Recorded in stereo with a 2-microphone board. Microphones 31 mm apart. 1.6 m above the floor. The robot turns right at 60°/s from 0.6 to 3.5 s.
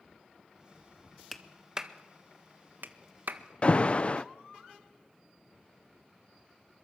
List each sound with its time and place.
1.3 s a clap: 10° left (ahead or behind), 1.6 m; by 3.4 s 60° right (ahead or behind), 1.6 m
3.6 s an alarm: 35° left (ahead or behind), 0.6 m